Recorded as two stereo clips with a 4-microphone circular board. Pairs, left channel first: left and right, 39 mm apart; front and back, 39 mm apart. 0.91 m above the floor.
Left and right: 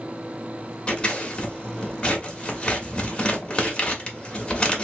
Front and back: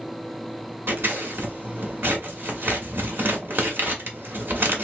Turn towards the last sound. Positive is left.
turn(degrees=155)